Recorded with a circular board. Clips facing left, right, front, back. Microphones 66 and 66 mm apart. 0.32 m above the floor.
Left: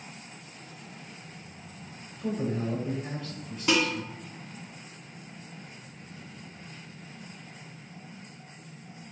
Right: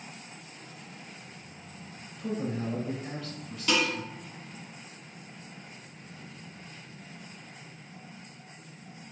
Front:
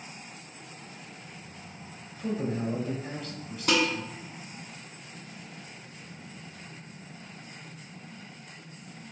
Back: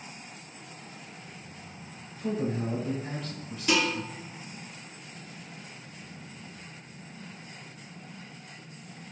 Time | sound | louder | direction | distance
2.2 | a man speaking | left 2 dB, even | 45° left | 1.5 m
3.7 | dishes clattering | left 2 dB, front 1 dB | 25° left | 1.9 m